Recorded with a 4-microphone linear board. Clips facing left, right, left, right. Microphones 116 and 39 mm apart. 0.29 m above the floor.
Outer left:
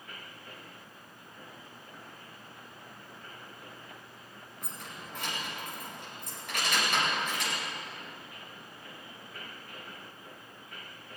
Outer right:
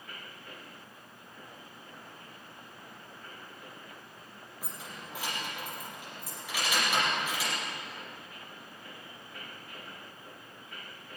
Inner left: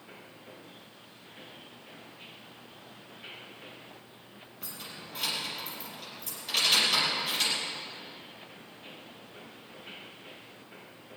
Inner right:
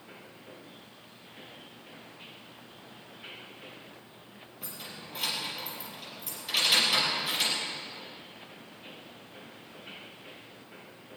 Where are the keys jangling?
5° right (ahead or behind), 4.5 m.